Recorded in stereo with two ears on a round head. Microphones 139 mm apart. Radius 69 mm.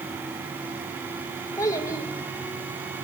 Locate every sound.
1.6 s a child speaking: 20° left (ahead or behind), 1.6 m